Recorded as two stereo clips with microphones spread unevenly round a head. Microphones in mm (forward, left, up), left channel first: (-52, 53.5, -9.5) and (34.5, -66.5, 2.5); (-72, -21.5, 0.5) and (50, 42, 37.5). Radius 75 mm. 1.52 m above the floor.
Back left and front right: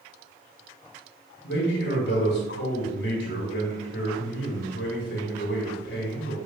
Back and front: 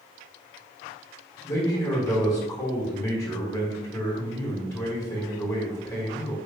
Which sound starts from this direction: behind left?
A man speaking, at 1.4 s.